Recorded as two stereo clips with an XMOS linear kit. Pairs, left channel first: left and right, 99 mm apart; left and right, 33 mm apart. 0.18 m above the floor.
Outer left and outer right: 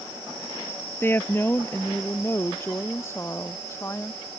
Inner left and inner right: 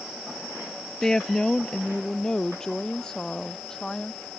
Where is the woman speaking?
20° left (ahead or behind); by 4.3 s 25° left (ahead or behind).